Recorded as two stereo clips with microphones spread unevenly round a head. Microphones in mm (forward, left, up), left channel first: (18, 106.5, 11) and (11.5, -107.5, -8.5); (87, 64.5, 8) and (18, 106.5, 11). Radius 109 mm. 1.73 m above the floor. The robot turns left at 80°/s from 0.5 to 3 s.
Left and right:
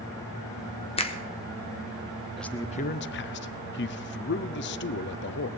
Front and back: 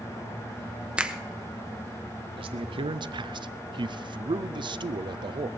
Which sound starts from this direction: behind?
A man speaking, at 2.4 s.